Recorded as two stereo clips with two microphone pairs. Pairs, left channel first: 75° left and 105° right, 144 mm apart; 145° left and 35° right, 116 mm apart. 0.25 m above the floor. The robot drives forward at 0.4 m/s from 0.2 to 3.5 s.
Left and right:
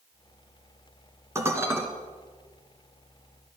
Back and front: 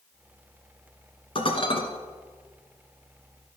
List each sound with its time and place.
1.4 s dishes clattering: 175° right, 1.7 m